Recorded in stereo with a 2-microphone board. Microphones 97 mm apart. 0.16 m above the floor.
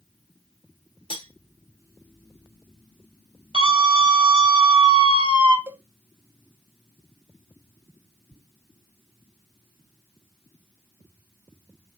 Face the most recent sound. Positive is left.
turn(degrees=-25)  # may be behind; listen again after turning